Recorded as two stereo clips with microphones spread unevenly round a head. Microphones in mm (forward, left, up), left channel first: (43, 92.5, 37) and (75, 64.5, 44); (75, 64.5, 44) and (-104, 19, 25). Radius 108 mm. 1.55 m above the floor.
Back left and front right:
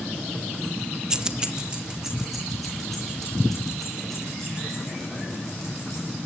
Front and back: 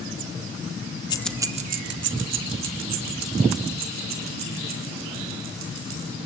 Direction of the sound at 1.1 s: 5° right.